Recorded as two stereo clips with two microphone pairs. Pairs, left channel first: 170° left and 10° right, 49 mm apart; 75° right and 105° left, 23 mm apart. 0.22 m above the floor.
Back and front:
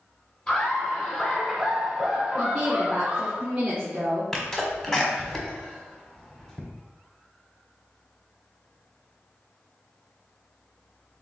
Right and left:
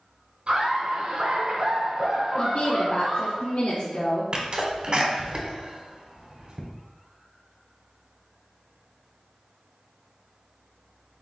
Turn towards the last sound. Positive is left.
turn(degrees=100)